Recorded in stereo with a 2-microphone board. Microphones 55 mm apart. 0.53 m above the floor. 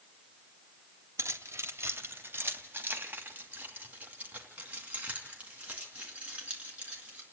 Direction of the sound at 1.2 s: 65° right (ahead or behind).